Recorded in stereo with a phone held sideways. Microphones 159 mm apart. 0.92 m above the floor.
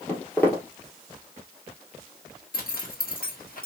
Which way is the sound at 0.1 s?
15° left (ahead or behind).